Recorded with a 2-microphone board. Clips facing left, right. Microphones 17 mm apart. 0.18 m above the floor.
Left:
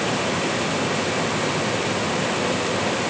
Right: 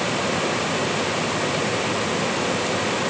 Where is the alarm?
No alarm in this recording.